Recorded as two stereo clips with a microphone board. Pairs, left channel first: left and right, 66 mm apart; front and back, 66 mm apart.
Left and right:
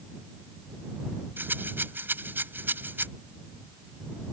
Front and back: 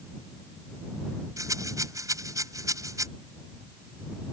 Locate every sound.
1.4 s a rattle: 150° right